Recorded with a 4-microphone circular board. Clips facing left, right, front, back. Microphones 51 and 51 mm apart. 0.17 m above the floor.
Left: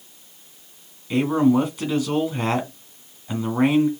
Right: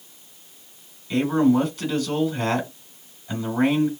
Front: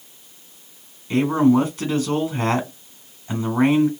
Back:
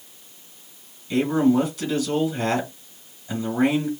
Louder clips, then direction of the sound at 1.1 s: Left 1 dB, front 3 dB; 20° left.